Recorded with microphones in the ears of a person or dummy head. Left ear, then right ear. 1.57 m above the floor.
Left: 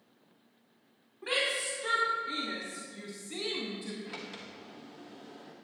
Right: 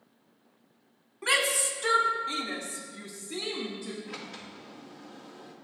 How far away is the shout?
About 1.9 m.